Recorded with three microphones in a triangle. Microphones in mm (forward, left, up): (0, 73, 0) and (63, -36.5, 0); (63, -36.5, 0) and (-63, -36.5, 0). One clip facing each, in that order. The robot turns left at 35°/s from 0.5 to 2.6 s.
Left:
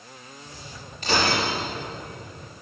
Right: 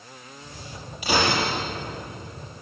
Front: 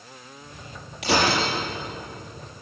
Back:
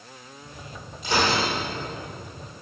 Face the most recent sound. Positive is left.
turn(degrees=-35)